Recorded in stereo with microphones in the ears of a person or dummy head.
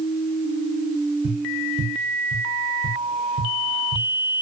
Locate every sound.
1.2 s tapping: 35° right (ahead or behind), 1.2 m